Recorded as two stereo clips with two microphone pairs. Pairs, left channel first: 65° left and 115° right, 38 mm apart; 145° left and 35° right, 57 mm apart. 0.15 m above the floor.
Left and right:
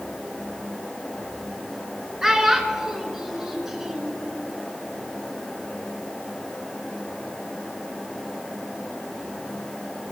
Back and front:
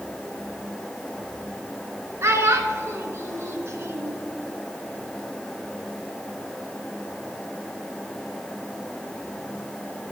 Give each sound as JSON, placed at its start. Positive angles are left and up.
{"t": 2.2, "sound": "a child speaking", "azimuth_deg": -35, "distance_m": 1.0}